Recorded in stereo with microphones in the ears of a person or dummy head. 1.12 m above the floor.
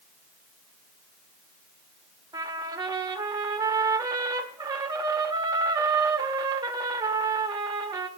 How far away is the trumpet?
About 1.2 m.